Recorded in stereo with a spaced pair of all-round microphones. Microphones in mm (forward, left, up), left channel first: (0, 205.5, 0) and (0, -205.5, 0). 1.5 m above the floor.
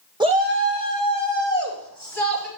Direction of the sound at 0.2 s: 10° right (ahead or behind).